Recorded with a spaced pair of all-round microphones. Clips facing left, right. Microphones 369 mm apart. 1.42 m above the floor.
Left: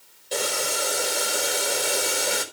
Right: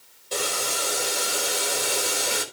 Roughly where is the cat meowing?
I don't hear a cat meowing.